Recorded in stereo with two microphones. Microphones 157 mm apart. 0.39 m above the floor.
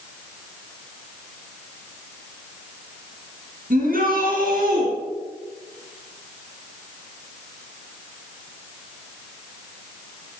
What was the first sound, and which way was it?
A shout, 70° right (ahead or behind).